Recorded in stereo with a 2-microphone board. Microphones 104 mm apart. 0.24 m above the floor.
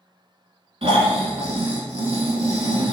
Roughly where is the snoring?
Right.